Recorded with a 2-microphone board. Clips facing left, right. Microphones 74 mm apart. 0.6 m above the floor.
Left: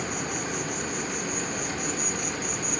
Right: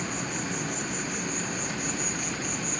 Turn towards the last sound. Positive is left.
turn(degrees=55)  # may be behind; listen again after turning